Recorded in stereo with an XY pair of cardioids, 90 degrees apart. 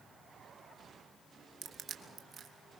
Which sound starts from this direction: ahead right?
Crushing, at 1.6 s.